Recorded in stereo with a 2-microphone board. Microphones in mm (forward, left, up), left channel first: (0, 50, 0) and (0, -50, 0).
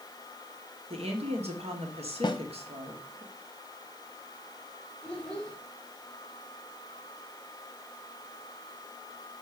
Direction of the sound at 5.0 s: 10° left (ahead or behind).